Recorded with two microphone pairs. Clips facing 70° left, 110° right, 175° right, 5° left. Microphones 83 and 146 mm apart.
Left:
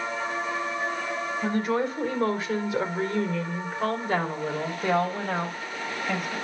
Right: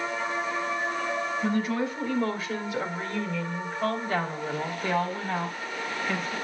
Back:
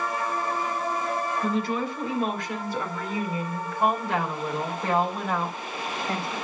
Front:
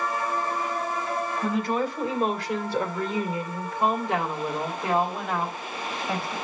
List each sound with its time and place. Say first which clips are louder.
1.4 s a woman speaking: left 3 dB, front 2 dB; 45° left, 1.9 m; by 6.3 s 90° left, 4 m